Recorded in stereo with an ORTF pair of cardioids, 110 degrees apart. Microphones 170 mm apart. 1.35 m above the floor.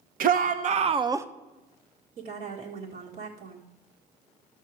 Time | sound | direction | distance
0.2 | a shout | 60° right | 1.1 m
2.2 | a woman speaking | 60° right | 1.9 m